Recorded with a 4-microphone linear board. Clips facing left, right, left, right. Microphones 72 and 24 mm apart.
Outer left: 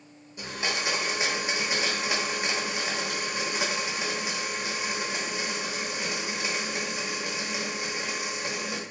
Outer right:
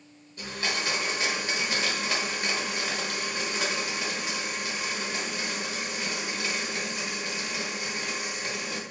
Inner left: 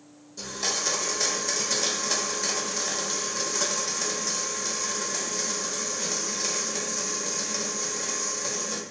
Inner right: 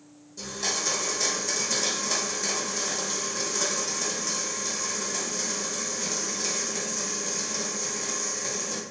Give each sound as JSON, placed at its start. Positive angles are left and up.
{"t": 0.4, "sound": "a blender", "side_deg": 15, "distance_m": 1.0}